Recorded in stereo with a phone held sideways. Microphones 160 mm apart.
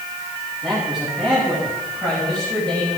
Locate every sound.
0.6 s a man speaking: 5° right (ahead or behind), 8.5 m; by 3.0 s 10° left (ahead or behind), 9 m